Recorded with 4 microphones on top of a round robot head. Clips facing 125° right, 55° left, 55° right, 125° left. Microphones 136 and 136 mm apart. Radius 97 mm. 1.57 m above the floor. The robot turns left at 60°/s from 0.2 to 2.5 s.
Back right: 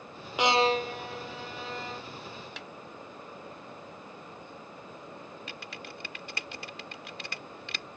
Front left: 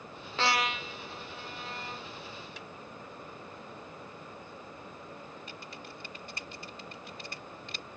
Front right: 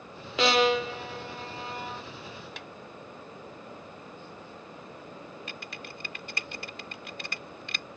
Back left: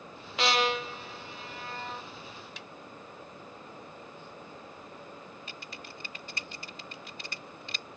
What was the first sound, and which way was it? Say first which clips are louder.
A violin: back right 7 dB, front right 5 dB; 50° right.